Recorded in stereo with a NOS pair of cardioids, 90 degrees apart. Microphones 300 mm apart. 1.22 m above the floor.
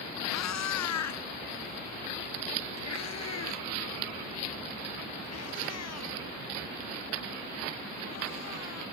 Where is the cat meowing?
65° left; by 8.8 s 55° left.